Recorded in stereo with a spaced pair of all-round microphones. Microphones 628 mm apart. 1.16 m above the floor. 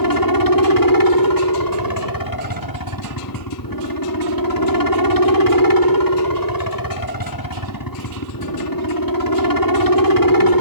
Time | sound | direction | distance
0.0 | a helicopter | 30° left (ahead or behind) | ?